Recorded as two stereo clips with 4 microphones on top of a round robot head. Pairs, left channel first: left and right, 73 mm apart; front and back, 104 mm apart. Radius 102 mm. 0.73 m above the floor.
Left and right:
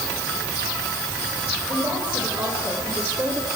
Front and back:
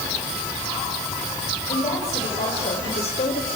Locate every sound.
1.7 s a woman speaking: 20° right, 5.5 m; by 3.5 s 25° right, 3 m